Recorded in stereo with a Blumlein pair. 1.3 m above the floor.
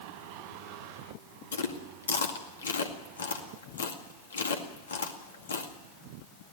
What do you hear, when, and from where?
1.5 s chewing: 70° left, 2 m